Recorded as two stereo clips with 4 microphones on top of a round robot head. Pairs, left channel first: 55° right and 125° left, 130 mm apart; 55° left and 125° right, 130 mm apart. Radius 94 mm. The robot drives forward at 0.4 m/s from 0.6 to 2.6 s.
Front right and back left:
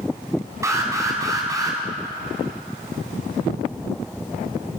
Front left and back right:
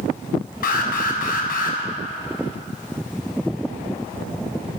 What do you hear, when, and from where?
0.6 s an alarm: 55° left, 4.5 m; by 1.8 s 60° left, 4.5 m